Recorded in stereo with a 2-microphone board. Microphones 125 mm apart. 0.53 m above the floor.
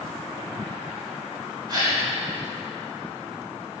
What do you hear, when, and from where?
1.7 s a gasp: 35° right (ahead or behind), 2 m